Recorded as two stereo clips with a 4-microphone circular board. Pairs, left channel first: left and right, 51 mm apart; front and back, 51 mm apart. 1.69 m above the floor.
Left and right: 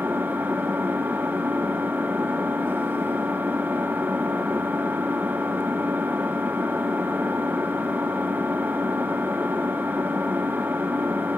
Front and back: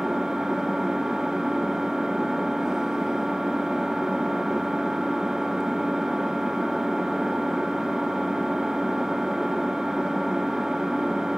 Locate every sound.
0.0 s an engine running: 110° right, 0.9 m